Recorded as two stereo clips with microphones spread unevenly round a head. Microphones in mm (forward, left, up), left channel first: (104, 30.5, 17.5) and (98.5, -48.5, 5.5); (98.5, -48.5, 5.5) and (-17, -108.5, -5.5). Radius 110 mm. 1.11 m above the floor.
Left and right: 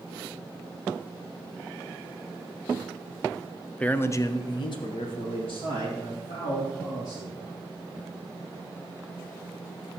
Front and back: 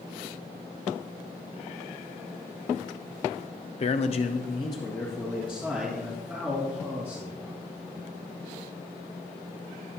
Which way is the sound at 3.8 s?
5° left.